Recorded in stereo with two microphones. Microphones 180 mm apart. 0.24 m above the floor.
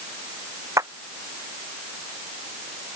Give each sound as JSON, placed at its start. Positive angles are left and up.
{"t": 0.8, "sound": "a clap", "side_deg": -20}